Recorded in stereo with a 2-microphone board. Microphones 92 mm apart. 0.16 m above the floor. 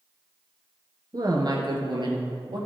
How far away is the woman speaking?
About 2 m.